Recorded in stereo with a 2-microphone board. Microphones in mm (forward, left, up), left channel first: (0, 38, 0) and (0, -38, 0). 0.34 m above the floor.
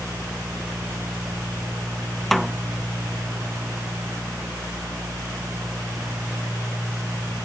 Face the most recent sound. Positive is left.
turn(degrees=0)  # may be behind; listen again after turning